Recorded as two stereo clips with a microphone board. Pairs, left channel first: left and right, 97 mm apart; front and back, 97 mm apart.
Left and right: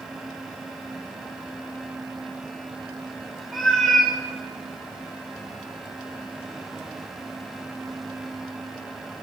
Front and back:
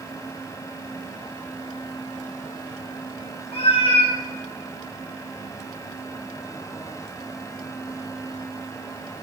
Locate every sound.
3.5 s a cat meowing: straight ahead, 3 m